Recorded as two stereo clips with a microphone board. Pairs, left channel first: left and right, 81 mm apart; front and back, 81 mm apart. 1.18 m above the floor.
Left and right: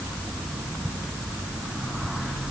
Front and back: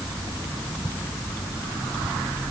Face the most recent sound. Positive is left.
No sound to turn to.